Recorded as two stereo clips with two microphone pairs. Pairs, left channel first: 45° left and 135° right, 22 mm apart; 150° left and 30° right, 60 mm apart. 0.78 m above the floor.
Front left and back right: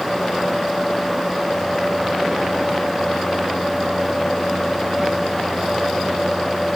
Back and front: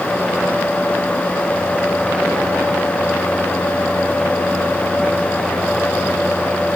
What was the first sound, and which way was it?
Only background noise.